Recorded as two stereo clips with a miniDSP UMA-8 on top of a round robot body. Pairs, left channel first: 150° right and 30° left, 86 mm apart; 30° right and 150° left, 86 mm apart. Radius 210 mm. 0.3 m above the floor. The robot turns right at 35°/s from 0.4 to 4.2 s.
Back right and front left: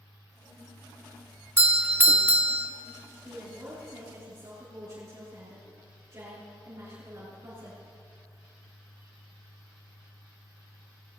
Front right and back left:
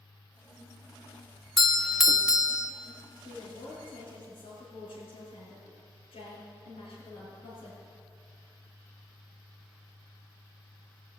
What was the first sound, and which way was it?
A doorbell, 50° left.